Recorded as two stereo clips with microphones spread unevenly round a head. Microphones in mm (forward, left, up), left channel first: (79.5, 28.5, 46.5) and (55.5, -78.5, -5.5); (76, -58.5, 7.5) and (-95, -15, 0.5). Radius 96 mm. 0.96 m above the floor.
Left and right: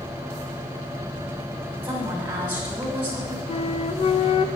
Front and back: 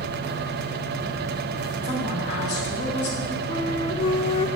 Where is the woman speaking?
30° right, 6 m.